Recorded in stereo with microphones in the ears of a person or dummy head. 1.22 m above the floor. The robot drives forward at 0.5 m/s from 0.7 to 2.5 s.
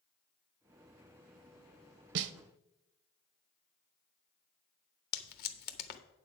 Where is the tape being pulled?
50° left (ahead or behind), 0.9 m.